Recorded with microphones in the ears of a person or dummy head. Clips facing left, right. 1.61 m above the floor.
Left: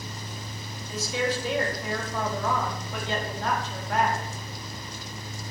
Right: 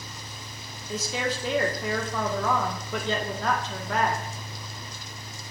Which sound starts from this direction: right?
A woman speaking, at 0.9 s.